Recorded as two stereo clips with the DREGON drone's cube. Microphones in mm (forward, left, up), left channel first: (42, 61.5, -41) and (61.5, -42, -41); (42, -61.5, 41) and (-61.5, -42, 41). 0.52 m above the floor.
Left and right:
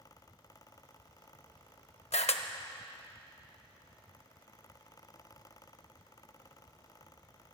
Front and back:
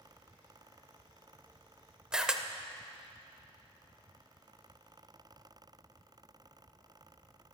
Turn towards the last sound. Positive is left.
turn(degrees=90)